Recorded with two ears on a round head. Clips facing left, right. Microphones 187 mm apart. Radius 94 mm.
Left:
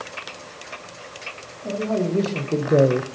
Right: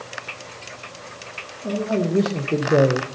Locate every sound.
1.6 s a man speaking: 20° right (ahead or behind), 1.6 m; by 3.1 s 30° left (ahead or behind), 0.5 m